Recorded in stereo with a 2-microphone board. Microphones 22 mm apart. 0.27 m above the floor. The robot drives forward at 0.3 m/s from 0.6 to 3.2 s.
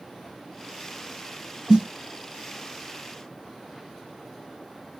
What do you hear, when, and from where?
1.7 s a snare drum: 40° right (ahead or behind), 1.8 m; by 1.9 s 45° right (ahead or behind), 1.7 m